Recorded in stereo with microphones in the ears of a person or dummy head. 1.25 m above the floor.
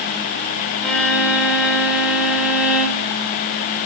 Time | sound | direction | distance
0.8 | a violin | 5° right (ahead or behind) | 2.5 m